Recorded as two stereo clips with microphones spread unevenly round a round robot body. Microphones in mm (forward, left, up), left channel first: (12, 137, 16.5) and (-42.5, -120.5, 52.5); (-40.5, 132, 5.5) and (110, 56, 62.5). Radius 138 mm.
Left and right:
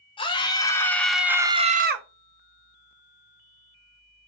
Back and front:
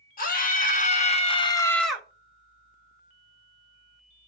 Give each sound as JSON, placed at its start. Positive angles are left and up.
{"t": 0.2, "sound": "a scream", "azimuth_deg": 145, "distance_m": 2.0}